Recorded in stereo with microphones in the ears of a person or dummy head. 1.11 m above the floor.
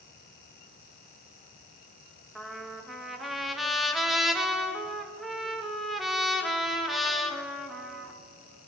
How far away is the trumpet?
About 1.8 m.